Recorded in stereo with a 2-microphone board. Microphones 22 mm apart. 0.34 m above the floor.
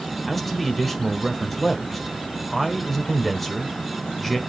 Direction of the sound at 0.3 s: Centre (ahead or behind).